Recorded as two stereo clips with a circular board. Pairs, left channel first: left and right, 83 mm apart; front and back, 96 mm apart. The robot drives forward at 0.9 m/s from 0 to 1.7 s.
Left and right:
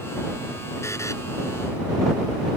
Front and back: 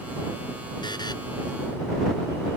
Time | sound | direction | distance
0.8 | a buzzer | 35° left | ?